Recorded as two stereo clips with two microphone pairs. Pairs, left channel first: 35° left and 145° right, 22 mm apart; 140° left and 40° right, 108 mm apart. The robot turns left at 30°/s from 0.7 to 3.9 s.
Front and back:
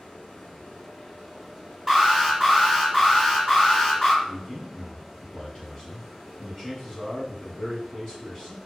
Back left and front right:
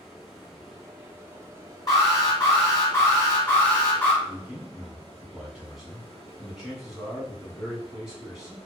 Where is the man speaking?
40° left, 1.1 m.